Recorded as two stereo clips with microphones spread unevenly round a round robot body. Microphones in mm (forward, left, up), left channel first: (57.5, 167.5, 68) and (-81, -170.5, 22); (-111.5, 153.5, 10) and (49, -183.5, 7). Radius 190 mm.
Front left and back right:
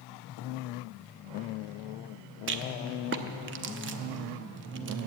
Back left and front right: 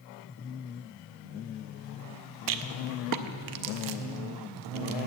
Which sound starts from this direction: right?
A rattle, at 2.5 s.